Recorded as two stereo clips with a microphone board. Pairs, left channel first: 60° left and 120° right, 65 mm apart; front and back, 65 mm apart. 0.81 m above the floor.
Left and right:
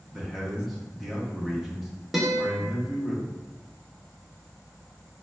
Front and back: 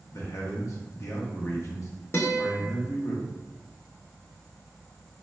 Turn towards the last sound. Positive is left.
turn(degrees=-30)